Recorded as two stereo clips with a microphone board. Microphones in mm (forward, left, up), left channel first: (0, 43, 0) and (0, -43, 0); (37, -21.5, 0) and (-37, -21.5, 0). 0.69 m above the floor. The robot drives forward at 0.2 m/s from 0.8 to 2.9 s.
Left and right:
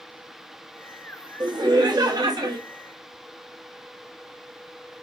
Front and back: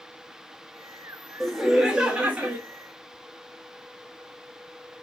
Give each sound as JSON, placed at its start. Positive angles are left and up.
{"t": 1.4, "sound": "laughter", "azimuth_deg": -90, "distance_m": 0.7}